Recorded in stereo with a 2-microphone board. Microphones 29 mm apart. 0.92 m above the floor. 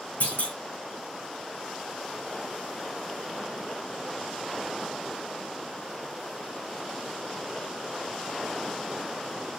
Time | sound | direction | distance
0.2 | a clunk | 70° left (ahead or behind) | 2.5 m